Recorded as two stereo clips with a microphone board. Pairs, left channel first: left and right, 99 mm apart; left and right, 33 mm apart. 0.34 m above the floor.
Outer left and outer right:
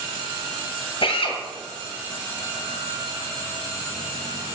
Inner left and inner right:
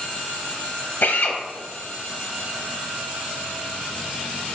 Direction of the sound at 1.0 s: 65° left (ahead or behind).